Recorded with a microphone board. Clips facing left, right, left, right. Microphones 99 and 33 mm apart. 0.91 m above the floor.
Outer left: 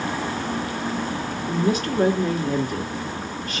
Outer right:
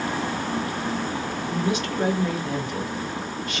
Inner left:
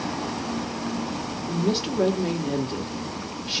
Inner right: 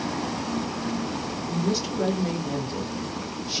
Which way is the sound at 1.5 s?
40° left (ahead or behind).